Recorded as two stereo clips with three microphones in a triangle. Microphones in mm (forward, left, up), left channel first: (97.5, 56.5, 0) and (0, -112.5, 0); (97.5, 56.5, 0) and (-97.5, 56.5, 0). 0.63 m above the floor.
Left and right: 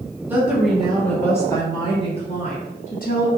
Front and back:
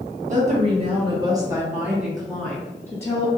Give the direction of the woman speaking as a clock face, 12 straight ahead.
6 o'clock.